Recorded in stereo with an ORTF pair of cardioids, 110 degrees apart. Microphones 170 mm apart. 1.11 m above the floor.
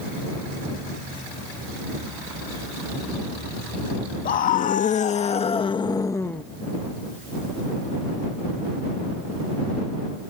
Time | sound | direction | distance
4.2 | a scream | 60° left | ?